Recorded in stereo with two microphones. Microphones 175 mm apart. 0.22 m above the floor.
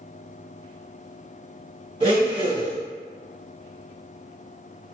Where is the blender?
30° right (ahead or behind), 1.7 m.